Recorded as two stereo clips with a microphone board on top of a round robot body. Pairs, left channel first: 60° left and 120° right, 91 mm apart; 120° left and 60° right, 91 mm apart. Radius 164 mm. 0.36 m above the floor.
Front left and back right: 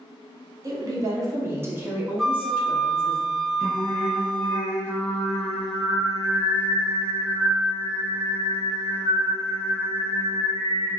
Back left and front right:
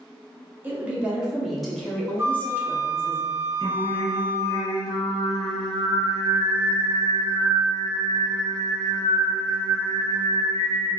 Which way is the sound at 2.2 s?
25° right.